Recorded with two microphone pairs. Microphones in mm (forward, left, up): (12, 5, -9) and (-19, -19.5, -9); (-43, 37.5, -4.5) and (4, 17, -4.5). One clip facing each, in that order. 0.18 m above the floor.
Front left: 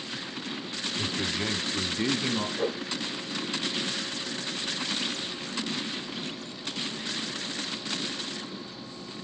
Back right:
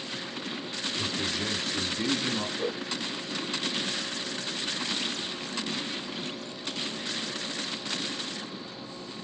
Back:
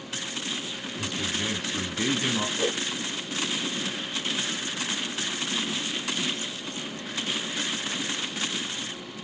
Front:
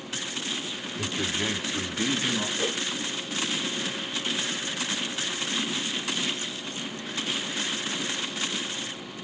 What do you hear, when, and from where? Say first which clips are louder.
1.0 s a man speaking: front left 1 dB, front 1 dB; 15° right, 1.1 m; by 2.5 s 100° left, 1.2 m
2.6 s a whoosh: front left 2 dB, back 2 dB; 90° left, 5 m